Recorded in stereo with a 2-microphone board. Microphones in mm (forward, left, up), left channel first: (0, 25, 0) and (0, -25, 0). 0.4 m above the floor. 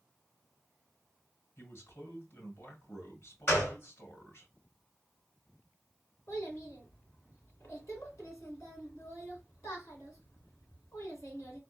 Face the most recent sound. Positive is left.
turn(degrees=75)  # may be behind; listen again after turning